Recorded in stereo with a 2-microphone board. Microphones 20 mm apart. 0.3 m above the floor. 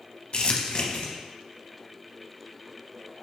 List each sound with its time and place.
0.3 s crumpling: 50° left (ahead or behind), 0.7 m